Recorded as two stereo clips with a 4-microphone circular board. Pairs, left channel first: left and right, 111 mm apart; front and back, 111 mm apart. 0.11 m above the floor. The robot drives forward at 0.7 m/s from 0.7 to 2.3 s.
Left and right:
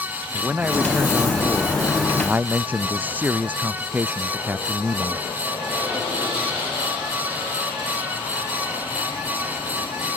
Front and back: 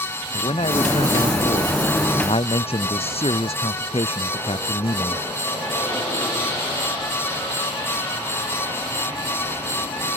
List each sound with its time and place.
0.3 s a man speaking: 15° right